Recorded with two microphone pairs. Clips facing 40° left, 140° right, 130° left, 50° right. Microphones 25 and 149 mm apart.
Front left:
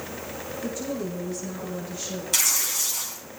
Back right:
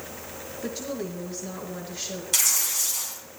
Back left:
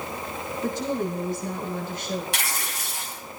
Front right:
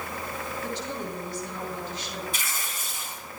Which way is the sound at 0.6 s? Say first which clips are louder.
Front left 1 dB, back left 10 dB; 170° left.